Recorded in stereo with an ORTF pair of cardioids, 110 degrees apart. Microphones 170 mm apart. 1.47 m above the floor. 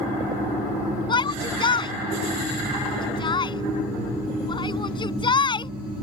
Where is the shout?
25° left.